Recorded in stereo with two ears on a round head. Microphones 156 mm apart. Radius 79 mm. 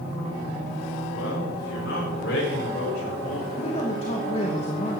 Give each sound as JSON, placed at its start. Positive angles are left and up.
{"t": 1.1, "sound": "a man speaking", "side_deg": 85, "distance_m": 6.0}
{"t": 3.6, "sound": "a man speaking", "side_deg": 35, "distance_m": 2.5}